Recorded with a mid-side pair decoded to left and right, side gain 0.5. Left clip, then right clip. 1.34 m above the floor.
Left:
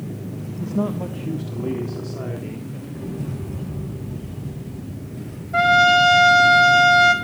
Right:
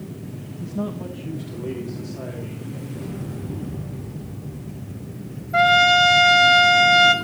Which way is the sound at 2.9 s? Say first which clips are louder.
Left 4 dB; 15° left.